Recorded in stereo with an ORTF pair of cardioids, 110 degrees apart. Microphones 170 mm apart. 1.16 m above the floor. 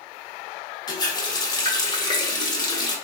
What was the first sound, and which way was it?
A running tap, 25° left.